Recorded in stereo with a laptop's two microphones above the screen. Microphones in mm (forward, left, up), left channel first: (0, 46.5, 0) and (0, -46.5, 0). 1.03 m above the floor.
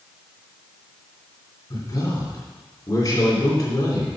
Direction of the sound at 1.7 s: 45° left (ahead or behind).